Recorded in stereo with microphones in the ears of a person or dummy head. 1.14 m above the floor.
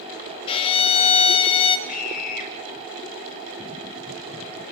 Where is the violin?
30° left (ahead or behind), 2 m.